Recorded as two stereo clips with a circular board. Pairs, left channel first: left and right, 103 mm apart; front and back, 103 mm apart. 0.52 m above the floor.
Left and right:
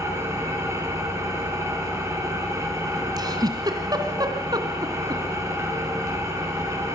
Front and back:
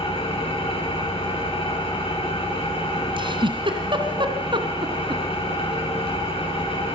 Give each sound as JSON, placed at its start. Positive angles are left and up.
{"t": 0.0, "sound": "an engine running", "azimuth_deg": -30, "distance_m": 5.5}
{"t": 3.2, "sound": "a giggle", "azimuth_deg": -140, "distance_m": 2.0}